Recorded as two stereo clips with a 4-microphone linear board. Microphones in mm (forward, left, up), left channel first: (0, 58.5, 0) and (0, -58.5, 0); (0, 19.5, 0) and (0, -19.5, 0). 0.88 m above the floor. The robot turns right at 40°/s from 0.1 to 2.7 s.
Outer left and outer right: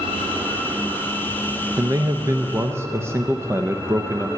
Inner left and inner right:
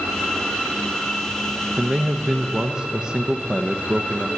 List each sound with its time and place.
1.8 s a man speaking: 30° right (ahead or behind), 0.6 m; by 4.3 s 20° right (ahead or behind), 0.6 m